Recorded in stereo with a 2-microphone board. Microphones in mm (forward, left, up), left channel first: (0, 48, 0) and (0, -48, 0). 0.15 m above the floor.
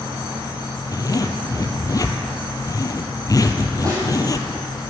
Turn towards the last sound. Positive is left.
turn(degrees=-35)  # may be behind; listen again after turning